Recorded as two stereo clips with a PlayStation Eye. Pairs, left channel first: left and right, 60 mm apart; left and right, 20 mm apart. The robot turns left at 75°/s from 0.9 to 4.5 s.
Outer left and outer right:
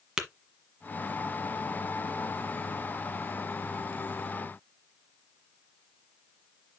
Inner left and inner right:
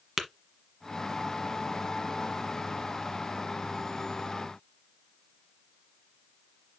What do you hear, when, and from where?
0.2 s tapping: 10° right (ahead or behind), 1.3 m